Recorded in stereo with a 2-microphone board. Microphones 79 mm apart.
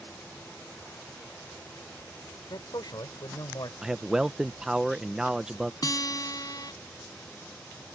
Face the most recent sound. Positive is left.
turn(degrees=50)  # may be behind; listen again after turning